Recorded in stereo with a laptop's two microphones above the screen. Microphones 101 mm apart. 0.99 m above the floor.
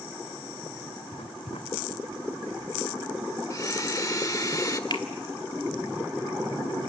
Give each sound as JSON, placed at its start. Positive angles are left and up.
{"t": 1.1, "sound": "writing", "side_deg": 80, "distance_m": 1.8}
{"t": 3.5, "sound": "a blender", "side_deg": 35, "distance_m": 1.2}
{"t": 4.9, "sound": "a finger snap", "side_deg": 50, "distance_m": 2.5}